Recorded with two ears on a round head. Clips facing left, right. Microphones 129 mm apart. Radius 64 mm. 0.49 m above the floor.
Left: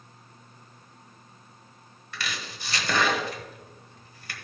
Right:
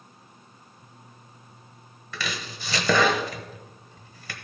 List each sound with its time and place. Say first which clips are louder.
2.1 s chopping: right 3 dB; 70° right (ahead or behind), 1.2 m